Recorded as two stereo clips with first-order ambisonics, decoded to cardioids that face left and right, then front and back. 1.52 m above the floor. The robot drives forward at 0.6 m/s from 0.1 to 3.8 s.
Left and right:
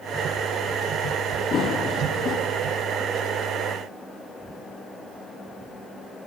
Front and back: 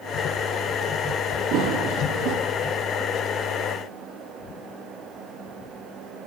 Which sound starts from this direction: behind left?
Running footsteps, at 1.5 s.